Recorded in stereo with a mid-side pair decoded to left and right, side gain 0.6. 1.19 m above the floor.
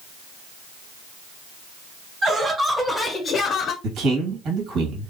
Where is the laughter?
35° right, 1.1 m; by 3.7 s 60° left, 0.8 m.